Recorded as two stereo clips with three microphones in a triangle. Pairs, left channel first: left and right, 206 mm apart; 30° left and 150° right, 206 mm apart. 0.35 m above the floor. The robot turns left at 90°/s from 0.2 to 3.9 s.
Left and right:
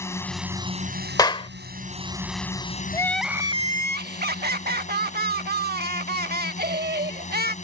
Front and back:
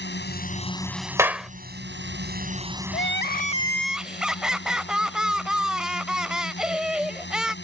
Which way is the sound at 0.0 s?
15° left.